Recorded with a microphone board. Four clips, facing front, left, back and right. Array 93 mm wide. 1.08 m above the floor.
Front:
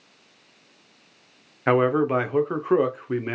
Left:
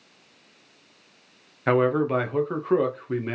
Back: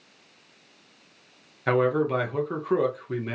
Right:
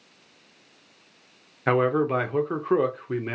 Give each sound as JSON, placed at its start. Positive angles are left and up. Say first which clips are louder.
{"t": 1.7, "sound": "a man speaking", "louder": "left 1 dB, front 3 dB", "azimuth_deg": -10, "distance_m": 0.5}